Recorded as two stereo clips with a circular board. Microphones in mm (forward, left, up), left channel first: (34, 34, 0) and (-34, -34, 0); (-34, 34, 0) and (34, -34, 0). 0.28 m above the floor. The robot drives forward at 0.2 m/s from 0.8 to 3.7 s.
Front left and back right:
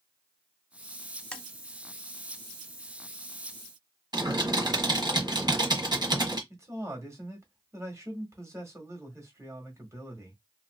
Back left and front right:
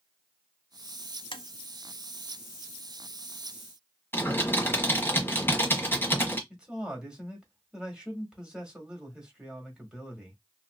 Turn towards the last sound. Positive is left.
turn(degrees=-120)